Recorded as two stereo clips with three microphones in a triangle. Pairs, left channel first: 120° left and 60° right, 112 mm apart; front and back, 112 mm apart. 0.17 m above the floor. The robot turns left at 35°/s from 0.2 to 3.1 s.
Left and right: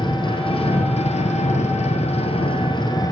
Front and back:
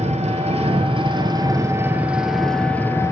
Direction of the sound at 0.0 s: 165° left.